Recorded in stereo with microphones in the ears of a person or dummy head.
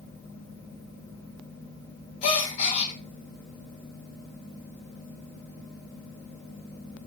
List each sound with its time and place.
2.2 s a gasp: 40° left (ahead or behind), 1.2 m